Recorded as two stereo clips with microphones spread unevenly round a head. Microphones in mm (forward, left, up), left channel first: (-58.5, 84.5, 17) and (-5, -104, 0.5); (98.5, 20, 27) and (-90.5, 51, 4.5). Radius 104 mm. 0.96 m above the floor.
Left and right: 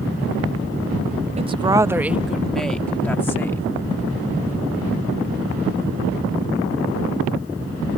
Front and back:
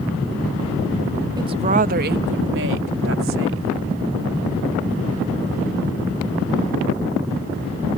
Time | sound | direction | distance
1.4 | a woman speaking | 125° right | ?